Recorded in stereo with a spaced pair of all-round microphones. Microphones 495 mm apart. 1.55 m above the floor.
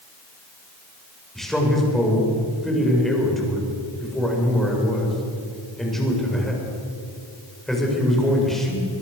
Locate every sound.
1.4 s a man speaking: centre (ahead or behind), 7.5 m